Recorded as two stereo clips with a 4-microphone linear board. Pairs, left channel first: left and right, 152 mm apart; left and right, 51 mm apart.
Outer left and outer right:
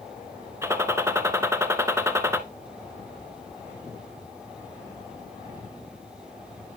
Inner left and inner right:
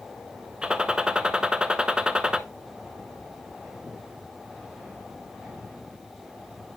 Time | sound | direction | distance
0.6 | a gunshot | 20° right (ahead or behind) | 0.5 m